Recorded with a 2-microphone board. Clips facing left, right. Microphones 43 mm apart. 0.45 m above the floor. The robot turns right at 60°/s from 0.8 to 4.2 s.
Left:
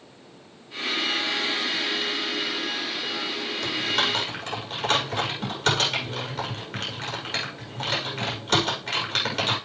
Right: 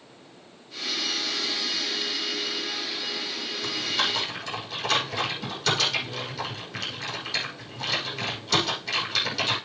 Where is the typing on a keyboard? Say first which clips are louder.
Left 2 dB; 75° left (ahead or behind), 6 m; by 9.6 s 45° left (ahead or behind), 6 m.